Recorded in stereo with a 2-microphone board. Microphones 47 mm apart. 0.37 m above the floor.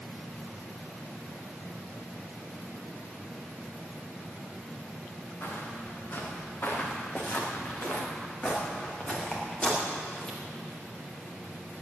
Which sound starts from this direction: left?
Footsteps, at 5.4 s.